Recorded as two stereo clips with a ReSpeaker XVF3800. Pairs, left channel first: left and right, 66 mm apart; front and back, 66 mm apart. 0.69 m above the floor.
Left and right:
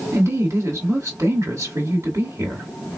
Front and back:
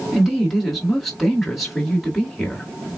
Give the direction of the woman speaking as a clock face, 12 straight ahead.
3 o'clock.